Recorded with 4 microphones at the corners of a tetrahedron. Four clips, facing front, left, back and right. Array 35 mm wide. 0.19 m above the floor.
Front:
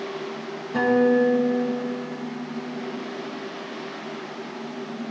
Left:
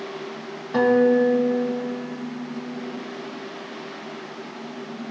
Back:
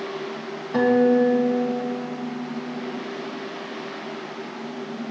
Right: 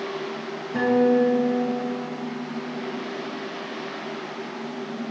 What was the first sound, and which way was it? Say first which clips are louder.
A guitar: left 2 dB, back 1 dB; 125° left.